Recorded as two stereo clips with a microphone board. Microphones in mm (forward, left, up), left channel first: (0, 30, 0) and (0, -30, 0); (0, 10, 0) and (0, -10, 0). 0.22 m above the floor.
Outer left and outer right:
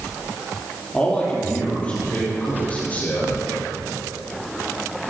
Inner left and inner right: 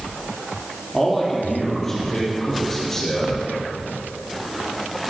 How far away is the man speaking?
About 6.5 m.